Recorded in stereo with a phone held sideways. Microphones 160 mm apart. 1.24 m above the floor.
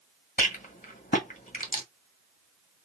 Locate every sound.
0.4 s a rattle: 55° left (ahead or behind), 1.7 m